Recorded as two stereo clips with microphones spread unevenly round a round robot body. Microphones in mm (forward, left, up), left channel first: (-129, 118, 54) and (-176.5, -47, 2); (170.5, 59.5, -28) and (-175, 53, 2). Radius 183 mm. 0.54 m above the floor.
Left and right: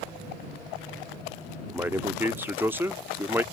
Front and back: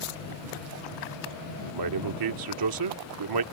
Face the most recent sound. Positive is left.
turn(degrees=-170)